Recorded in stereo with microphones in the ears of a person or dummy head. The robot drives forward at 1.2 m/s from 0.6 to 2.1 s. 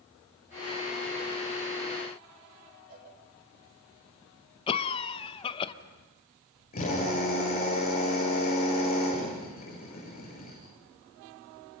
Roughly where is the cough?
Left.